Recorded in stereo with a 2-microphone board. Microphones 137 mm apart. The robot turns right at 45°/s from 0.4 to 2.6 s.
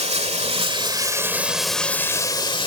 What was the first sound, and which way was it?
Running water, 55° right.